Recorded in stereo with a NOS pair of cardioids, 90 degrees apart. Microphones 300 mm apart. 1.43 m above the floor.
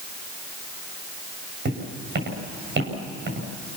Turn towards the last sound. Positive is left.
turn(degrees=-35)